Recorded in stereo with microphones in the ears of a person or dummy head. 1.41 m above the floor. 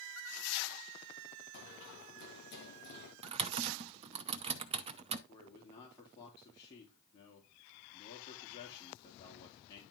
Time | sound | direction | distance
1.5 | running footsteps | 65° left (ahead or behind) | 7.5 m
3.2 | typing on a keyboard | 30° right (ahead or behind) | 0.7 m
5.3 | a man speaking | 25° left (ahead or behind) | 2.5 m